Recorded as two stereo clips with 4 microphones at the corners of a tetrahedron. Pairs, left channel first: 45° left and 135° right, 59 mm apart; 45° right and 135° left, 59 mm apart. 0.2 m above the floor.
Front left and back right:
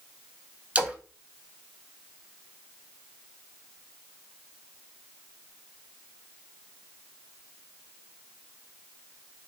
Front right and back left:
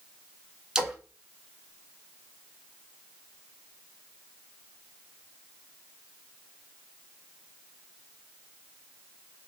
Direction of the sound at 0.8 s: 165° right.